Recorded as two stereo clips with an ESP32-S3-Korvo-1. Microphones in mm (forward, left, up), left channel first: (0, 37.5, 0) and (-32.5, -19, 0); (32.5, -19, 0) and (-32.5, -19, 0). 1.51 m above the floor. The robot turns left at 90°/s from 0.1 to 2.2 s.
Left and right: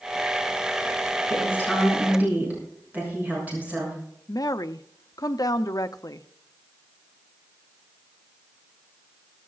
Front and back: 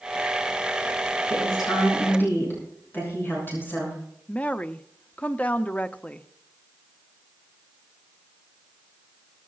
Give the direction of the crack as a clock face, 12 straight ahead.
No crack in this recording.